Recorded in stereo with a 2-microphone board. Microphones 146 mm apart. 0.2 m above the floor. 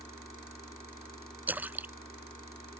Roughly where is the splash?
Centre.